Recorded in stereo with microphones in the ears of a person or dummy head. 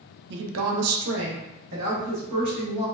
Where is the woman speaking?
55° right (ahead or behind), 0.5 m; by 2.9 s 35° right (ahead or behind), 1.3 m.